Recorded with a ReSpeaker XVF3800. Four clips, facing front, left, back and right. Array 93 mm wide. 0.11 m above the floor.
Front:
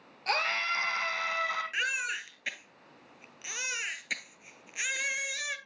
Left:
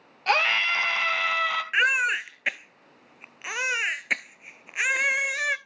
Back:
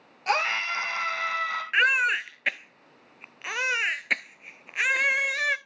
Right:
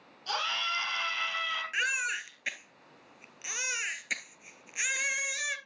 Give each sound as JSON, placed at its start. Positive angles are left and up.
{"t": 0.3, "sound": "a scream", "azimuth_deg": 105, "distance_m": 2.0}
{"t": 1.7, "sound": "a baby crying", "azimuth_deg": 140, "distance_m": 0.5}